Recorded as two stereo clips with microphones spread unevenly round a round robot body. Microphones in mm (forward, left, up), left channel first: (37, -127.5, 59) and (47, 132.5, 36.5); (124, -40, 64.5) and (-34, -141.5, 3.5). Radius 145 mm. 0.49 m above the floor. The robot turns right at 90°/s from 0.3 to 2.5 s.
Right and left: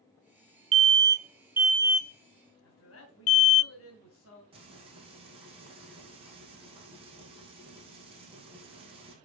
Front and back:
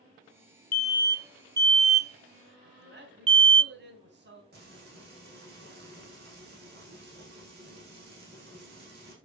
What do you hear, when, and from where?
0.7 s an alarm: 85° left, 0.5 m; by 3.6 s 110° right, 0.5 m
2.6 s a man speaking: 135° right, 3 m
4.5 s frying: 160° left, 4 m